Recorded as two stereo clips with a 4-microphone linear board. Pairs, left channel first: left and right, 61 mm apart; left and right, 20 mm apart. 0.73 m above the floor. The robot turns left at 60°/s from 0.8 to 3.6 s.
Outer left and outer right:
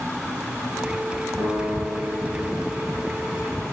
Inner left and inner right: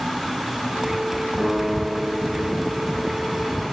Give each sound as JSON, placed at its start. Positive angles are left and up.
{"t": 1.4, "sound": "a piano", "azimuth_deg": -85, "distance_m": 4.5}